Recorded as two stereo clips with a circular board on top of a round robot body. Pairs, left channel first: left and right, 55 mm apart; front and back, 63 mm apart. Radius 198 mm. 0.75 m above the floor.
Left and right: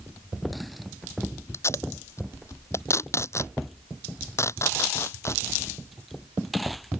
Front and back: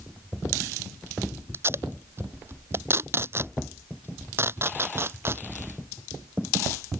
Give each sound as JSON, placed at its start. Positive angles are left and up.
{"t": 1.5, "sound": "tape being pulled", "azimuth_deg": 130}